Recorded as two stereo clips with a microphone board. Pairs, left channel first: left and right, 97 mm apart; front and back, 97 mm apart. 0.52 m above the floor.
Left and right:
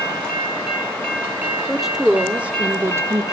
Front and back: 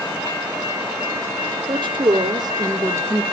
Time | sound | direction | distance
1.7 | a woman speaking | straight behind | 1.3 m